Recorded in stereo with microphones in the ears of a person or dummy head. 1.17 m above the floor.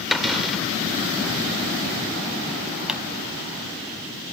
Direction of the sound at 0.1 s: Centre (ahead or behind).